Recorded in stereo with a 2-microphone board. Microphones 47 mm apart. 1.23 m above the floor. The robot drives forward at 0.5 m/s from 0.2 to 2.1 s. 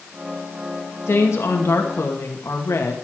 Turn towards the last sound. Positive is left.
turn(degrees=80)